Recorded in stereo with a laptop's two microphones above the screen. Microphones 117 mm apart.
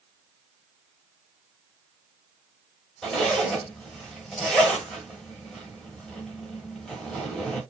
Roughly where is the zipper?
Centre.